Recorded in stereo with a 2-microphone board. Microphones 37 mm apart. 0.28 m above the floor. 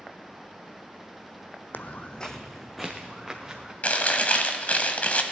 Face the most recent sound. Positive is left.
turn(degrees=45)  # may be behind; listen again after turning